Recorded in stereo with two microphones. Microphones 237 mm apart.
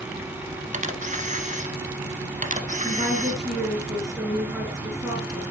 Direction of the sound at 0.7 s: 30° right (ahead or behind).